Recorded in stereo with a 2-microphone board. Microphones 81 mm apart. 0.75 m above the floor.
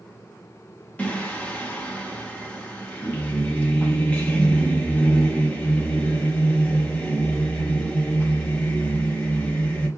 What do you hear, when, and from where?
1.0 s singing: 20° left (ahead or behind), 0.6 m